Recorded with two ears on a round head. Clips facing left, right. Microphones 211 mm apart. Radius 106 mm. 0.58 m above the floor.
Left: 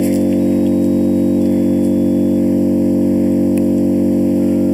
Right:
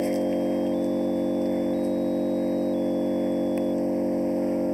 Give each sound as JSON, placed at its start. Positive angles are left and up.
{"t": 0.0, "sound": "an engine running", "side_deg": 55}